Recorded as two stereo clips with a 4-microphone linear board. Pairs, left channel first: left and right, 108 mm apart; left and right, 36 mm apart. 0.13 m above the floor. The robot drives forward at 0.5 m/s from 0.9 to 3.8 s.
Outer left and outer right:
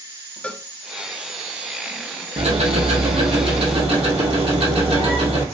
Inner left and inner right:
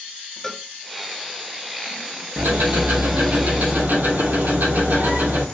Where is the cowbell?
10° left (ahead or behind), 0.5 m.